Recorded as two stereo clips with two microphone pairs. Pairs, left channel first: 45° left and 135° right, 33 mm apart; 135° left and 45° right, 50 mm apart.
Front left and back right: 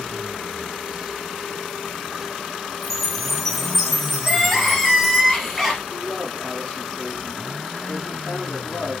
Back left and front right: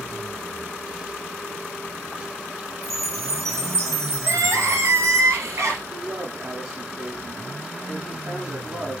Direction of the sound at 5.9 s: 10° right.